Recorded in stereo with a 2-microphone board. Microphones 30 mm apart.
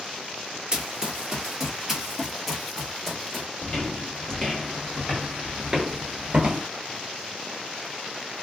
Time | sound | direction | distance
0.7 | running footsteps | 25° right (ahead or behind) | 1.3 m
3.6 | footsteps | 30° left (ahead or behind) | 2.0 m